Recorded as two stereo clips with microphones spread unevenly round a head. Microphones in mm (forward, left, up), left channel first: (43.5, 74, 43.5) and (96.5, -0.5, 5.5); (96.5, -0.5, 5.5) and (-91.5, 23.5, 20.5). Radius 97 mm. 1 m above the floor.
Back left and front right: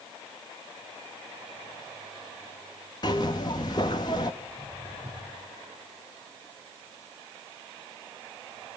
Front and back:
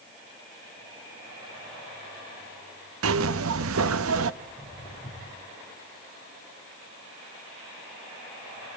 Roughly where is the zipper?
Behind.